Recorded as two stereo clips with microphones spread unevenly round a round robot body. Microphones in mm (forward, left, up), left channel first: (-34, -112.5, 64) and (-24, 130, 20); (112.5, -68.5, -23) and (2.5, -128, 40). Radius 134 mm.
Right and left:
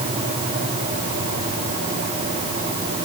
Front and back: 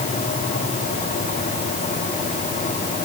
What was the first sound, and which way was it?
Only background noise.